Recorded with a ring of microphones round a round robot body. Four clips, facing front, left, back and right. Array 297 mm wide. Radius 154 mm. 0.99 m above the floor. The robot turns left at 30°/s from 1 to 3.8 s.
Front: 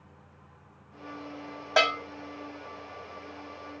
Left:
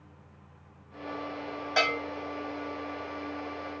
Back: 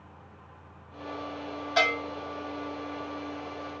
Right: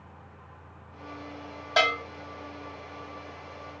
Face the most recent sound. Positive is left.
turn(degrees=-80)